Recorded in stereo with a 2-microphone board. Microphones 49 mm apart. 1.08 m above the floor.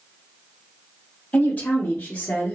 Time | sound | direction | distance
1.3 | a woman speaking | 25° left (ahead or behind) | 0.8 m